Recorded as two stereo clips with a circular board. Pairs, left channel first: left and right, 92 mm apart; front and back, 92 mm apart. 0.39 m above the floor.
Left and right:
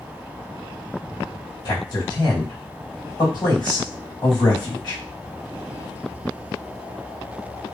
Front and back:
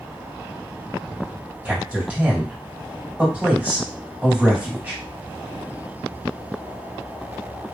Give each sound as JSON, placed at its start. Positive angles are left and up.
{"t": 1.6, "sound": "a man speaking", "azimuth_deg": 110, "distance_m": 2.5}